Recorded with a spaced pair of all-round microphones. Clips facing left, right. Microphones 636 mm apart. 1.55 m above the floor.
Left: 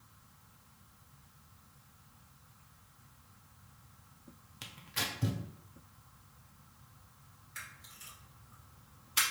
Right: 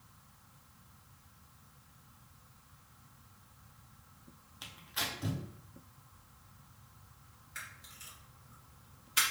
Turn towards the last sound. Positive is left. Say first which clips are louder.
# right 1 dB
turn(degrees=-20)  # may be behind; listen again after turning